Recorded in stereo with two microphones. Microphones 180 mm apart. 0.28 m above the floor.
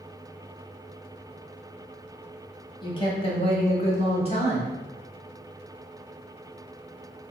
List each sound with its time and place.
2.8 s a woman speaking: 25° left (ahead or behind), 1.0 m; by 4.8 s 35° left (ahead or behind), 1.4 m